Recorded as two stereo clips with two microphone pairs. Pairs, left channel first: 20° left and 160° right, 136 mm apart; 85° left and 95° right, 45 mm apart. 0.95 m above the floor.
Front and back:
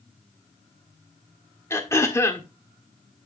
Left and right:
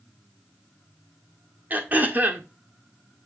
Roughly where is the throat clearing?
Ahead right.